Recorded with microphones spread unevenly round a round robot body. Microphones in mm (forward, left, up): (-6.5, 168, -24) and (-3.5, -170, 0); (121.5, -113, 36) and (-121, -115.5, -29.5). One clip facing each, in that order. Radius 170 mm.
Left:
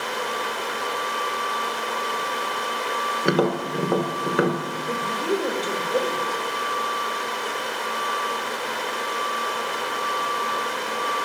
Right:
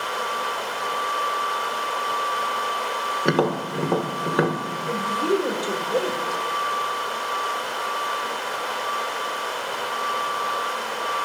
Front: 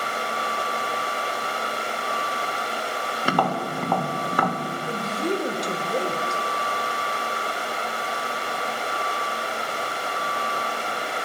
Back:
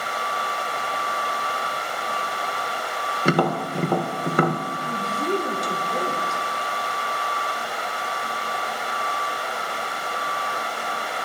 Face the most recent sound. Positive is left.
turn(degrees=-15)